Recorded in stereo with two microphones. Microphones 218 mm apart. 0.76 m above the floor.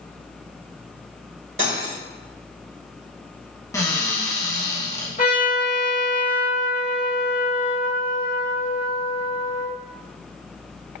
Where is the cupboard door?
15° left (ahead or behind), 1.3 m.